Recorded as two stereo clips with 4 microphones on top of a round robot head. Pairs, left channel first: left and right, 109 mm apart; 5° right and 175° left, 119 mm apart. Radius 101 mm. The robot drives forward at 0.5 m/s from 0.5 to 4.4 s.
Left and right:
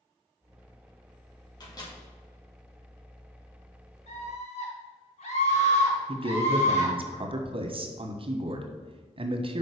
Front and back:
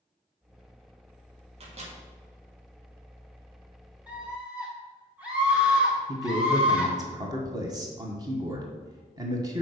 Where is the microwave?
140° left, 2.5 m; by 1.9 s 145° left, 2.5 m.